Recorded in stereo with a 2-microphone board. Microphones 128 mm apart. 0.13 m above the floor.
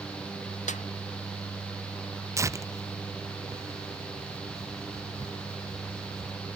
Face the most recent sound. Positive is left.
turn(degrees=-25)  # may be behind; listen again after turning